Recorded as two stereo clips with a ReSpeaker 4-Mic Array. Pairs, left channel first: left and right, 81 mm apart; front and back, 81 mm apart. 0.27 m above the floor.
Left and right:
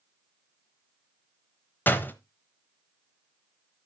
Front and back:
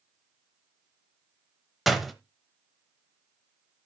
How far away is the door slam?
About 0.8 m.